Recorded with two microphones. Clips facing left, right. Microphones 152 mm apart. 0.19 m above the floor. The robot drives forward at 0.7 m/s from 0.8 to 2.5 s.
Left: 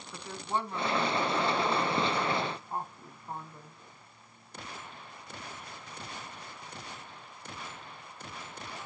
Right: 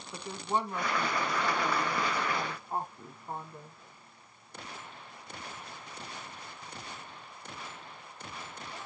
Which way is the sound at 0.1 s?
15° right (ahead or behind).